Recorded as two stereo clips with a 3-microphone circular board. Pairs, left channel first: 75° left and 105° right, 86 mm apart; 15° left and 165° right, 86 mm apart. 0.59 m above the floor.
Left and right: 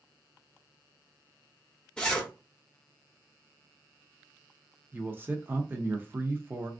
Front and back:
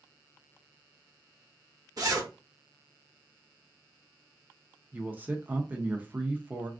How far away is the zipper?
About 0.8 m.